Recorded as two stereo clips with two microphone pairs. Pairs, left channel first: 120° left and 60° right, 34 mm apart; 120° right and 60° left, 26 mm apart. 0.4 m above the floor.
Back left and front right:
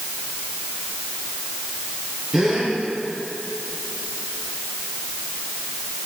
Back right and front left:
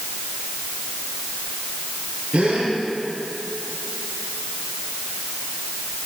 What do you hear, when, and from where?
2.3 s a gasp: 20° left, 5.5 m